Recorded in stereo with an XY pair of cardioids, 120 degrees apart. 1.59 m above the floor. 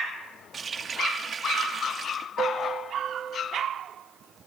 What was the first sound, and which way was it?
A running tap, 35° right.